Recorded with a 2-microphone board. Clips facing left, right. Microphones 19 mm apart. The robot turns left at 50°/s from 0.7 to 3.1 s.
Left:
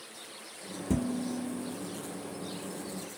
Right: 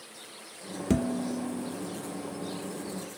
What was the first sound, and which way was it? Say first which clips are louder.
Dishes clattering: right 3 dB; 80° right.